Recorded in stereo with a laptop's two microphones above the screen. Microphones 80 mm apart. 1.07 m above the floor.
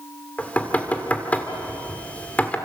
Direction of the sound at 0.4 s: 20° left (ahead or behind).